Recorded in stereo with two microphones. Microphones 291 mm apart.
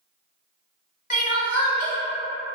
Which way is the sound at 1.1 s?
25° left (ahead or behind).